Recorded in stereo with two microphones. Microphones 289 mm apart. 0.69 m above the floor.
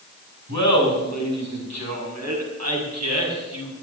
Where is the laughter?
80° right, 6.5 m; by 3.7 s 65° right (ahead or behind), 6.5 m.